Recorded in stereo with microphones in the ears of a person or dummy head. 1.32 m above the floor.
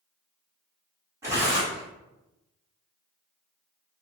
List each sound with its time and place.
1.2 s tearing paper: 15° right (ahead or behind), 2 m